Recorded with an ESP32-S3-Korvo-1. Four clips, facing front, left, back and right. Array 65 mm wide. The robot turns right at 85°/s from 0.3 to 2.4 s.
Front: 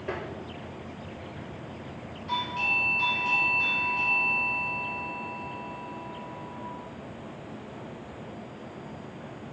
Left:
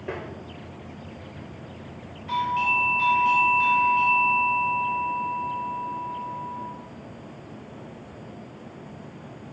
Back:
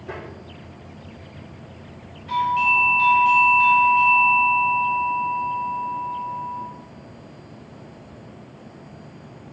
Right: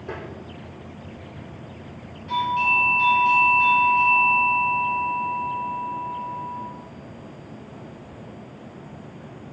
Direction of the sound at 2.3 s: 145° left.